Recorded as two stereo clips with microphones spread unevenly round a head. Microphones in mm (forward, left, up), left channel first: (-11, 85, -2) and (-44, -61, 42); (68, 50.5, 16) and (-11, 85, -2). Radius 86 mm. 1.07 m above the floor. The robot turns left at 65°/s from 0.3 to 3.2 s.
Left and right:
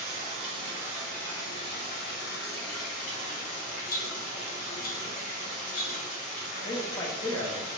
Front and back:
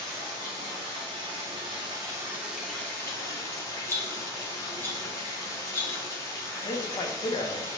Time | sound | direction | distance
0.0 | running water | 145° right | 1.1 m
3.9 | a rattle | 45° left | 0.7 m
6.7 | a man speaking | 15° left | 0.6 m